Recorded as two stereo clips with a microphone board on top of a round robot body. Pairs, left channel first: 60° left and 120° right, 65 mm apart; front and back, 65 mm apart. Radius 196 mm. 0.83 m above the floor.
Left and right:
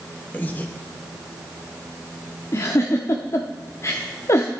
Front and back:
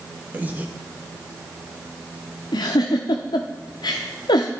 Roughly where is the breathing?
Behind left.